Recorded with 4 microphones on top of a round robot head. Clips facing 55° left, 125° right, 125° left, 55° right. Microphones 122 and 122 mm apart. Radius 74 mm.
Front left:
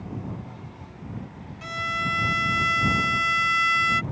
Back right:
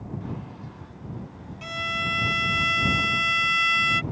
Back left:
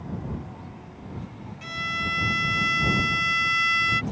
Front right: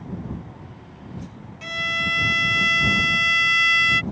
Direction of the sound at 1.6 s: 50° right.